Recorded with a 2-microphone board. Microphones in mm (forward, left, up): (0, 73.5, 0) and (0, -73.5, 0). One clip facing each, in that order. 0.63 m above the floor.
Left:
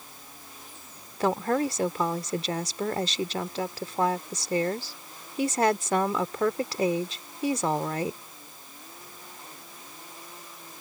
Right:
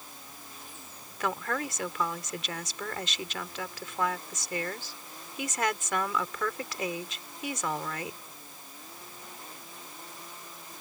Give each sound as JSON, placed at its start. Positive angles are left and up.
{"t": 1.2, "sound": "a woman speaking", "side_deg": 35}